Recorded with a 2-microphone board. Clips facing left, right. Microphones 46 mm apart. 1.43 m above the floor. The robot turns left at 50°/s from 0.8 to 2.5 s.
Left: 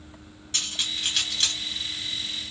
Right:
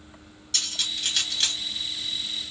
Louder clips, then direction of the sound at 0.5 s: Left 1 dB; 25° left (ahead or behind).